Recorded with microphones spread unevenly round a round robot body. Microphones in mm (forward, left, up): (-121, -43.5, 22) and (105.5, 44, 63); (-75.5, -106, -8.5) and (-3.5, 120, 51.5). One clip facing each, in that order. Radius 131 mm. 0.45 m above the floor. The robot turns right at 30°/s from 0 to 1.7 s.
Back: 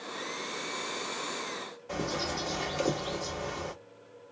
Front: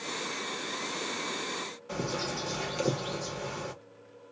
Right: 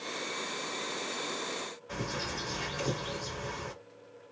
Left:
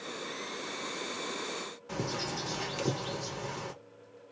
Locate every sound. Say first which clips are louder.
1.9 s a bird: even, left 3 dB; 100° left, 1.3 m